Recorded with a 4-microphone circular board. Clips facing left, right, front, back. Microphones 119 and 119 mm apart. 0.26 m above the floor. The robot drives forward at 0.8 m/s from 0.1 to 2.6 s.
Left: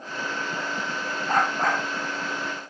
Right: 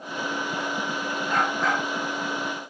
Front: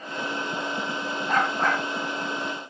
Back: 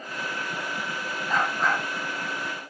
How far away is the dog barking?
About 6 m.